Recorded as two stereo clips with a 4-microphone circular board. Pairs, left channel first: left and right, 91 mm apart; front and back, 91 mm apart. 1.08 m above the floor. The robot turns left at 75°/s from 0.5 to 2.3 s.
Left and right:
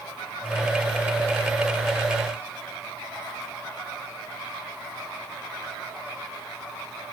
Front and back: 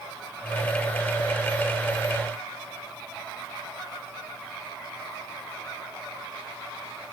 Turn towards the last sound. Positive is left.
No sound to turn to.